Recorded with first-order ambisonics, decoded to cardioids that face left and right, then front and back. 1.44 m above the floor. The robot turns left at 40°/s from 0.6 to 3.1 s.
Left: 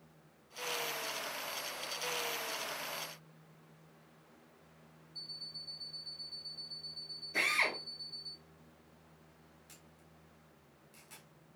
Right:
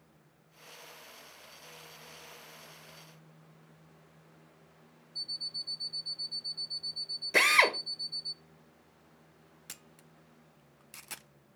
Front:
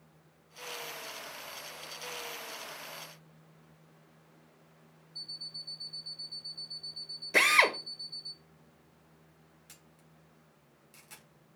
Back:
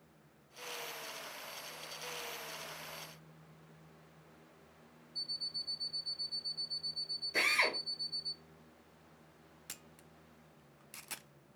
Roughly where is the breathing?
I don't hear breathing.